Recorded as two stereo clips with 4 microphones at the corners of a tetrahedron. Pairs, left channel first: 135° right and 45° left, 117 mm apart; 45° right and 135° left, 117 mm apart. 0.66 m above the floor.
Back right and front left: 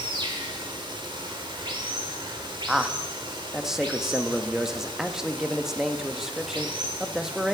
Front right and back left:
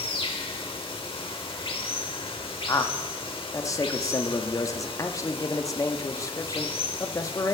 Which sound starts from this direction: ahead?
Running water, at 0.0 s.